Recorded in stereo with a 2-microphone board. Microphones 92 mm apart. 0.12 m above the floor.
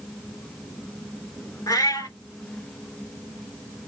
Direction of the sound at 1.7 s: 40° left (ahead or behind).